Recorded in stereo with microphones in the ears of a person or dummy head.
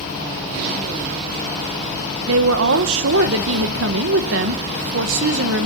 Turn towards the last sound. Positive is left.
turn(degrees=-65)  # may be behind; listen again after turning